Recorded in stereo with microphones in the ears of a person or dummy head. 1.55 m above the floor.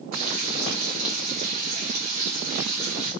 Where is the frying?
40° right (ahead or behind), 1.2 m.